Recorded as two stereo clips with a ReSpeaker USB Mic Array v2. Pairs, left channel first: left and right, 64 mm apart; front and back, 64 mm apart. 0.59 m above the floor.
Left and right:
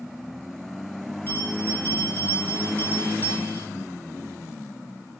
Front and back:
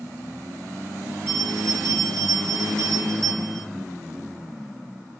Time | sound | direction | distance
1.3 | a bell | 145° left | 5.5 m